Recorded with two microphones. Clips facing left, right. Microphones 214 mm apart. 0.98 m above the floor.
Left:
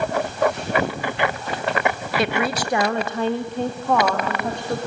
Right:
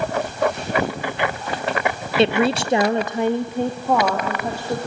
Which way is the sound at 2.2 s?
25° right (ahead or behind).